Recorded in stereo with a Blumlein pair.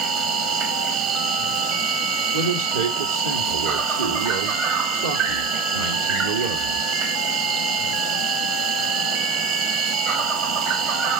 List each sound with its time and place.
0.0 s an insect: 35° right, 1.0 m
2.3 s a man speaking: 70° right, 1.4 m